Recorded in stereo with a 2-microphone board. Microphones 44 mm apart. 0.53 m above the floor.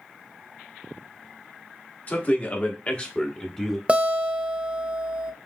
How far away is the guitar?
About 0.6 m.